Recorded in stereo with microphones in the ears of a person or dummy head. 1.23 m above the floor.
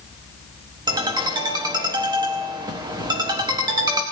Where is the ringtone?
20° right (ahead or behind), 1.2 m.